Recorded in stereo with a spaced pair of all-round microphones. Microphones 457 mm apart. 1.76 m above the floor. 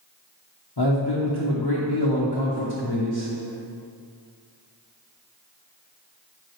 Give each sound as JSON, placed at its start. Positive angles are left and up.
{"t": 0.8, "sound": "a man speaking", "side_deg": 60, "distance_m": 1.1}